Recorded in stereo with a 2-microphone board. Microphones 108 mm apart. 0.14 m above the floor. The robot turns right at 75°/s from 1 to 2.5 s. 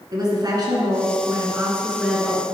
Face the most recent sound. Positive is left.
turn(degrees=25)